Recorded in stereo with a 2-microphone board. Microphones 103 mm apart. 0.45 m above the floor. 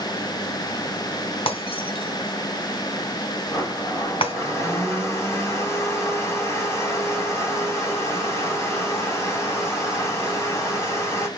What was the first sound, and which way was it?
Breaking glass, 60° left (ahead or behind).